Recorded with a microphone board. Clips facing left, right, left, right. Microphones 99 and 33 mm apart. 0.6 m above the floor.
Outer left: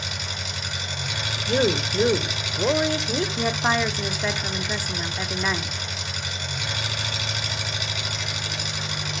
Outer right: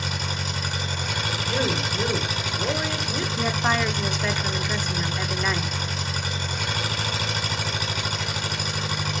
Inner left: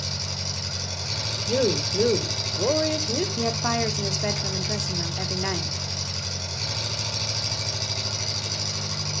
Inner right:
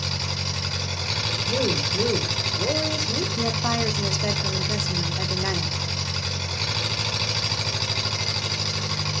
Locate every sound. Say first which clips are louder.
0.0 s an engine running: outer right 4 dB, inner right 3 dB; 45° right (ahead or behind), 4 m
1.5 s a woman speaking: outer left 5 dB, inner left 3 dB; 30° left (ahead or behind), 1.8 m
3.4 s a woman speaking: outer right 1 dB, inner right 1 dB; 10° left (ahead or behind), 1.6 m